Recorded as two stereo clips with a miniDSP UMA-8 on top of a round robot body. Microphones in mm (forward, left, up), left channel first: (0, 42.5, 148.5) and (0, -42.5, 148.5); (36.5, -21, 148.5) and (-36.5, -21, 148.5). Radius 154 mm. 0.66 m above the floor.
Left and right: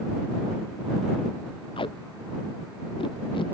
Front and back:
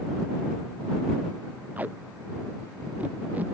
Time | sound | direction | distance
1.8 | tape being pulled | 110° left | ?